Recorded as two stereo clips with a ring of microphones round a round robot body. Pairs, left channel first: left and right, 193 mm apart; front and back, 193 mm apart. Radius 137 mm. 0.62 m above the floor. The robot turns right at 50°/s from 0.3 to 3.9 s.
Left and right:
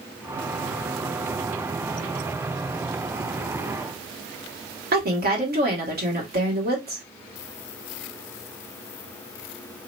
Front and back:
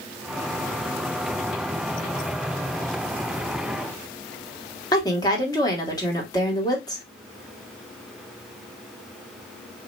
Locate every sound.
4.9 s a woman speaking: 70° right, 2.0 m